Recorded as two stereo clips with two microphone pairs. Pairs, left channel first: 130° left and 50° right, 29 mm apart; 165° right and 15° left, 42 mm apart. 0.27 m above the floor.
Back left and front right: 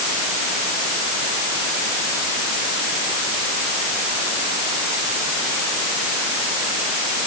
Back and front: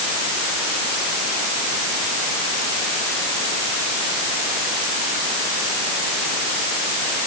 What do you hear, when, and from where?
Only background noise.